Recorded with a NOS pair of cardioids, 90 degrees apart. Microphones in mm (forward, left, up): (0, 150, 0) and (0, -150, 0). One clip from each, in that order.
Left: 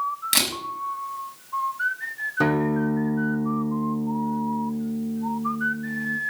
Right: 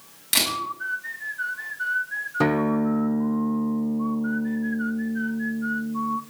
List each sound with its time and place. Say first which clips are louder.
0.3 s a camera shutter: right 1 dB; 30° left, 5.5 m
2.4 s a guitar: even; 10° right, 1.5 m